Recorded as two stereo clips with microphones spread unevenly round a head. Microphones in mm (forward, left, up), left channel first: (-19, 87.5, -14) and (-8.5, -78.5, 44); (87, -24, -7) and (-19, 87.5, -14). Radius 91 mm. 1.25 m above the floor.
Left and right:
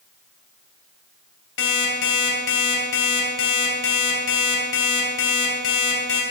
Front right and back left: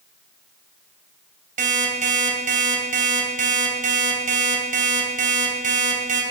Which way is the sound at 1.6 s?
100° left.